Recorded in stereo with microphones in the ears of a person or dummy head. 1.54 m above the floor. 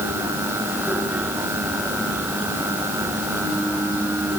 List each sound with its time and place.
Only background noise.